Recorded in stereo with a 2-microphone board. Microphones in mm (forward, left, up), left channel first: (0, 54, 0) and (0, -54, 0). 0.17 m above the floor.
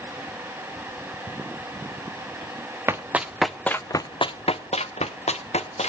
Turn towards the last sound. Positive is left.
turn(degrees=85)